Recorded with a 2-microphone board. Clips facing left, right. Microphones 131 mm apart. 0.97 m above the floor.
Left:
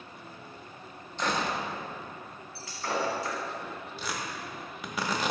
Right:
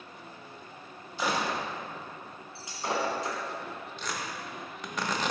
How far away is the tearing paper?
About 0.8 m.